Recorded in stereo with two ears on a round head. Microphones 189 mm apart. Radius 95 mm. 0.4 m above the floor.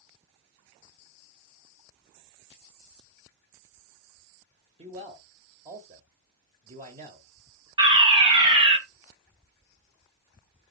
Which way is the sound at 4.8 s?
30° right (ahead or behind).